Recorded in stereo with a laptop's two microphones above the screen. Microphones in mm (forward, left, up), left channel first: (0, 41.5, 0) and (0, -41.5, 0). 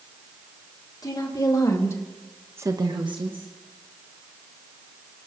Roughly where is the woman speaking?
Left.